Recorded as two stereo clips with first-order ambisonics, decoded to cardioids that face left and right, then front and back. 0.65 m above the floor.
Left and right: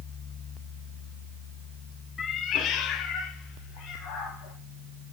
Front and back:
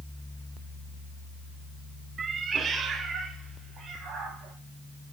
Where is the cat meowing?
135° left, 0.5 m; by 4.5 s 115° left, 3 m.